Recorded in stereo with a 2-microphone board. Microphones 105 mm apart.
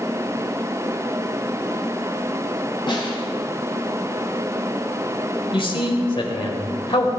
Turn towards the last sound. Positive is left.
turn(degrees=55)  # may be behind; listen again after turning